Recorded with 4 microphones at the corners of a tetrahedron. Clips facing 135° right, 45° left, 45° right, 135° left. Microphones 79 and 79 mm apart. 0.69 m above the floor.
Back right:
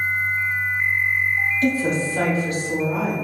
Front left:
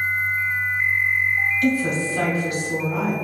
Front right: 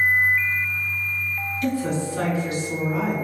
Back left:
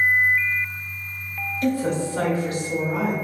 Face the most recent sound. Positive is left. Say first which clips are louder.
# even, back left 2 dB
turn(degrees=175)